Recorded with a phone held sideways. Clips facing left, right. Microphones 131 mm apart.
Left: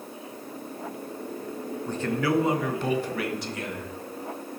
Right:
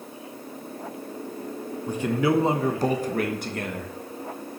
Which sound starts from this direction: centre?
A man speaking, at 1.9 s.